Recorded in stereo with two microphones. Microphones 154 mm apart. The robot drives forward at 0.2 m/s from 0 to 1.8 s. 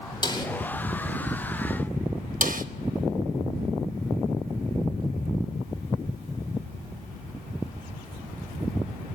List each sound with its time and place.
0.2 s a snare drum: 30° left (ahead or behind), 2.5 m
2.4 s a snare drum: 60° right (ahead or behind), 1.0 m